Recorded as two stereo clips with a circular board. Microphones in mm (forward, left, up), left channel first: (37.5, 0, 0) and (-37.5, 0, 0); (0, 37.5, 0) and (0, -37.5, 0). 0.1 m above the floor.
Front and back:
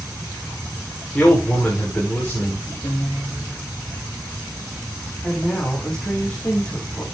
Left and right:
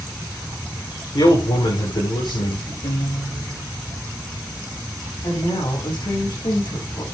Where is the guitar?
60° left, 5.5 m.